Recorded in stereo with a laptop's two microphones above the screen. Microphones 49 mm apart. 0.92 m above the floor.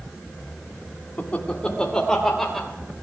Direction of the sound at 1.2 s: 35° left (ahead or behind).